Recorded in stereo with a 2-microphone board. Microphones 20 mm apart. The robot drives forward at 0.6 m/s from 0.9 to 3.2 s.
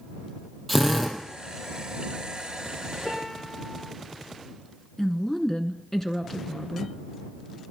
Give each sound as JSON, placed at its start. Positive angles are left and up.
{"t": 0.7, "sound": "a drill", "side_deg": 5, "distance_m": 2.5}
{"t": 3.0, "sound": "a piano", "side_deg": 45, "distance_m": 2.5}
{"t": 5.0, "sound": "a woman speaking", "side_deg": 20, "distance_m": 1.2}